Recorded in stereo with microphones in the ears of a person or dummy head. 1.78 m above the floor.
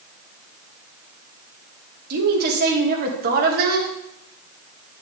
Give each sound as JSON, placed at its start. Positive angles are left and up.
{"t": 2.1, "sound": "a woman speaking", "side_deg": -60, "distance_m": 2.0}